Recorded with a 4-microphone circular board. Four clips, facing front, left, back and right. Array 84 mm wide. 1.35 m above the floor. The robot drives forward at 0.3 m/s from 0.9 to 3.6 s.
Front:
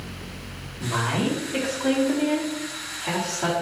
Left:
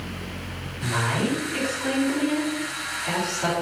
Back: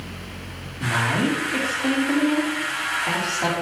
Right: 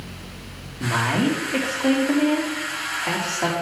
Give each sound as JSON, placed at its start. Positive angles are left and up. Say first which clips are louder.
{"t": 0.8, "sound": "a woman speaking", "louder": "right 4 dB, back 3 dB", "azimuth_deg": -105, "distance_m": 2.5}